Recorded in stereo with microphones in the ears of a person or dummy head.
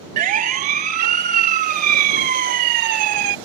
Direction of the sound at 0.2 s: 45° right (ahead or behind).